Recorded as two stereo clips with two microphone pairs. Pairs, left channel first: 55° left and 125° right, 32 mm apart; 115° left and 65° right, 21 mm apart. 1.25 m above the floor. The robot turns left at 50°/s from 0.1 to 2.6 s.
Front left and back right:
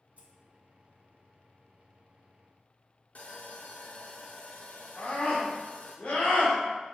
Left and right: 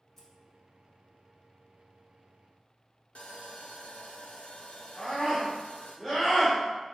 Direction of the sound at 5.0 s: 55° left.